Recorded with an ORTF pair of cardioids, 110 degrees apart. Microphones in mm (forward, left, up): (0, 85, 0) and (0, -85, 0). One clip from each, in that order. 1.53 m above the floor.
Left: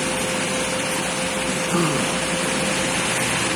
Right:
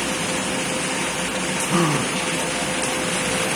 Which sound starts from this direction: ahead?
A gasp, at 1.6 s.